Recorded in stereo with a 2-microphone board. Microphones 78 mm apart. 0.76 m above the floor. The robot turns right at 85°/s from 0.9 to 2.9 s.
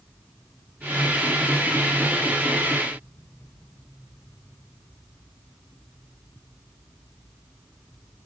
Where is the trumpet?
I don't hear a trumpet.